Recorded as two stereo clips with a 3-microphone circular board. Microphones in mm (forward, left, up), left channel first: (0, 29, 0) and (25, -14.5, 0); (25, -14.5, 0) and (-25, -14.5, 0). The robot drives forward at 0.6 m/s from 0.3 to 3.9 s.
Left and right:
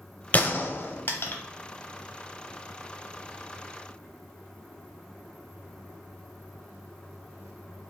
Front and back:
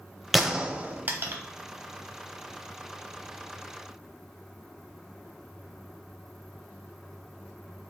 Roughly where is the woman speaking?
I don't hear a woman speaking.